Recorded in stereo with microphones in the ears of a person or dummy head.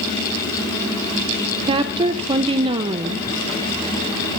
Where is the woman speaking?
25° right (ahead or behind), 0.6 m.